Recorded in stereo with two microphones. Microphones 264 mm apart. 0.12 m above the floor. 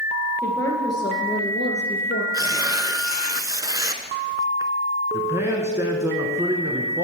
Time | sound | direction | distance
0.4 | a woman speaking | 10° left (ahead or behind) | 2 m
2.3 | tearing paper | 15° right (ahead or behind) | 0.6 m
5.1 | a man speaking | 10° right (ahead or behind) | 1.1 m